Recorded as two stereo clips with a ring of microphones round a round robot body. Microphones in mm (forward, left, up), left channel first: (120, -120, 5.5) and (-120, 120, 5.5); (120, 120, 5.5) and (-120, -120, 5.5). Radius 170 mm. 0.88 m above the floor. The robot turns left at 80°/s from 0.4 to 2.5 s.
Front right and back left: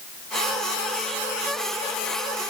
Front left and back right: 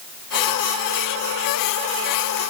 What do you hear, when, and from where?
Only background noise.